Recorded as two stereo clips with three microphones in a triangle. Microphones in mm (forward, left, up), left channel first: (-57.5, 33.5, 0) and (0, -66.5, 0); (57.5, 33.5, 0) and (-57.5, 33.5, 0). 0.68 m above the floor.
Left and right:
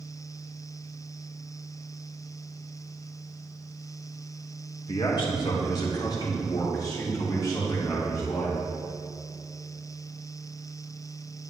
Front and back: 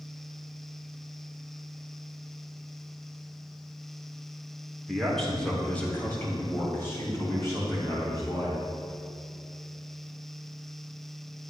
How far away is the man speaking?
About 1.9 m.